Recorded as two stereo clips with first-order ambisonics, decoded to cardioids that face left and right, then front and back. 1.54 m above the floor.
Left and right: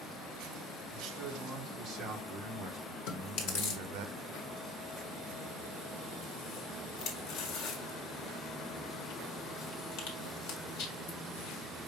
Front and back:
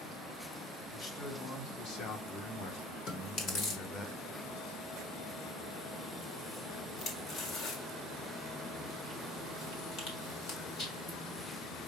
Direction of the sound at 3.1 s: 55° left.